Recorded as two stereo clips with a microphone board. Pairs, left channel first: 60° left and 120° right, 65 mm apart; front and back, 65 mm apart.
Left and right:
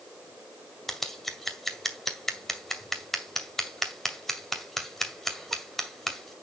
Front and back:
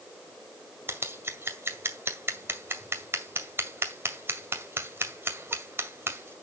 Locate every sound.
0.9 s scissors: 150° left, 2 m